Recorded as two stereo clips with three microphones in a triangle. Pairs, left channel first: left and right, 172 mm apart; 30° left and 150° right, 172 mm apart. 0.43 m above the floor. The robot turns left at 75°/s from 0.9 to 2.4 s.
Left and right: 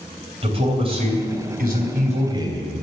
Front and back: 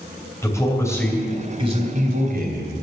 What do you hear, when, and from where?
0.4 s a man speaking: 40° right, 2.5 m; by 2.8 s 155° right, 2.5 m